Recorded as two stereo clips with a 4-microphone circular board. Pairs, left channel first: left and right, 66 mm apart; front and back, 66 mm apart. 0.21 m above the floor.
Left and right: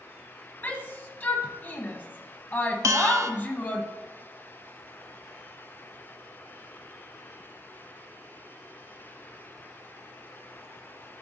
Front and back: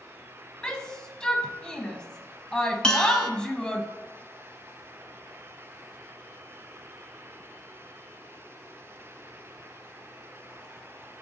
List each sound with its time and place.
0.6 s a shout: 65° left, 1.1 m
2.8 s a bell: 75° right, 0.7 m